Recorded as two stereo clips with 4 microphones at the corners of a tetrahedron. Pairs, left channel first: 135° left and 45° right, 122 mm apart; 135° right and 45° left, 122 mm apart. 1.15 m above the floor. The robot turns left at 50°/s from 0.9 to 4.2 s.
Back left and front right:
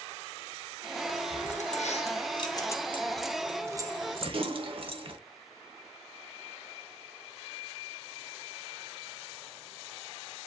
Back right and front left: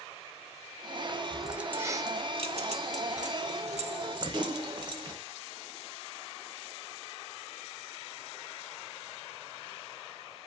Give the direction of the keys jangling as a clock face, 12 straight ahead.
7 o'clock.